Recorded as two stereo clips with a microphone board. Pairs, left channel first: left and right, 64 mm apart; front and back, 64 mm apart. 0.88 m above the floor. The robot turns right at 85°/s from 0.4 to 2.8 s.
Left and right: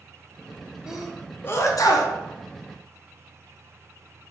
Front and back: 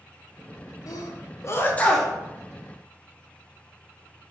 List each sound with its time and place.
0.9 s a sneeze: 10° right, 0.6 m; by 2.1 s 95° left, 0.6 m